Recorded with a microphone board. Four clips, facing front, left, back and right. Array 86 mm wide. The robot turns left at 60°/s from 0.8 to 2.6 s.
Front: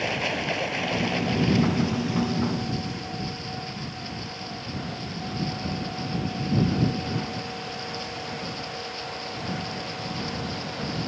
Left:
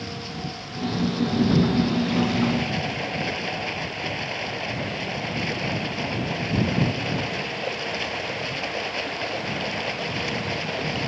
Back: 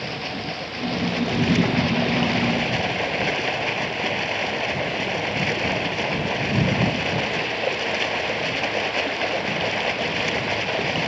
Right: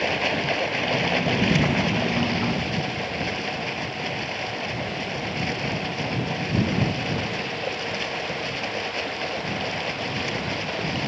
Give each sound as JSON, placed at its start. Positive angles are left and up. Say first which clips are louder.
{"t": 0.0, "sound": "running water", "louder": "right 9 dB, front 2 dB", "azimuth_deg": -75}